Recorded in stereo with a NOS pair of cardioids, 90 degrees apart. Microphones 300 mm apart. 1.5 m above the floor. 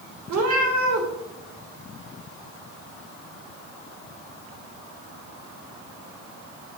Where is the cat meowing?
65° right, 2.5 m.